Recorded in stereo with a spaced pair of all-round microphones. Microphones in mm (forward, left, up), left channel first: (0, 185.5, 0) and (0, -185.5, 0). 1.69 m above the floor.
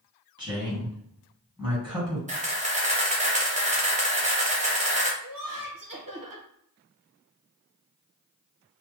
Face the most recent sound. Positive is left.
turn(degrees=-60)  # may be behind; listen again after turning